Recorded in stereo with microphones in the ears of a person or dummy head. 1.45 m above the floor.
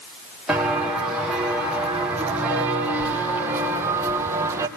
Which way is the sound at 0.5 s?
Centre (ahead or behind).